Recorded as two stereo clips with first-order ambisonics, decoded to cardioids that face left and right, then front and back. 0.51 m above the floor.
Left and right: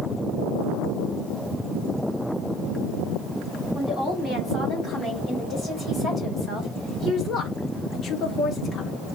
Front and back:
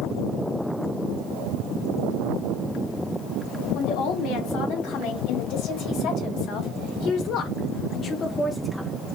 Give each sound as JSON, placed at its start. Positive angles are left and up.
{"t": 3.8, "sound": "a woman speaking", "azimuth_deg": 15, "distance_m": 3.0}